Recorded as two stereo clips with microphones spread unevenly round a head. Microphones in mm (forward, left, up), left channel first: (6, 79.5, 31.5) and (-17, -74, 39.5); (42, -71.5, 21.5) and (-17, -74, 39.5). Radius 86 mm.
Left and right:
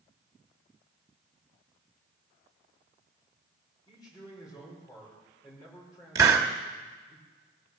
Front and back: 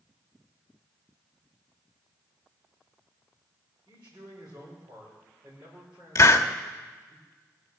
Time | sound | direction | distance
3.9 | a man speaking | 150° left | 5 m
6.2 | a hiss | 30° right | 1.1 m